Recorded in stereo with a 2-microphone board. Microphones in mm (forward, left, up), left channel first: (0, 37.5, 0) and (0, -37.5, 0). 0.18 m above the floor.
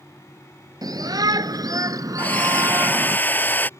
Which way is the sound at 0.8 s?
55° right (ahead or behind).